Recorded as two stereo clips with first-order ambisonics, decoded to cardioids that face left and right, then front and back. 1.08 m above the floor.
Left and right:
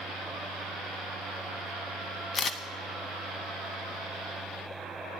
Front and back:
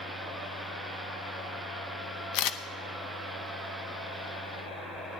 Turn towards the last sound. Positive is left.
turn(degrees=25)